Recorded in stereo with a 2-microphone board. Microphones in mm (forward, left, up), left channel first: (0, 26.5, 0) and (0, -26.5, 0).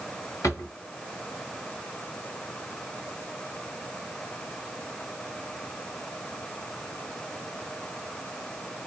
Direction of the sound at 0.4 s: 85° left.